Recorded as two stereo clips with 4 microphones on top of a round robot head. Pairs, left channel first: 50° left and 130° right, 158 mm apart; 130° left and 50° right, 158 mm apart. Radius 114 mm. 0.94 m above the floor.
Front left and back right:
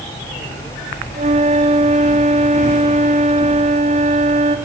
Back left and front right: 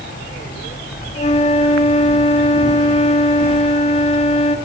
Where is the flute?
Straight behind, 1.6 m.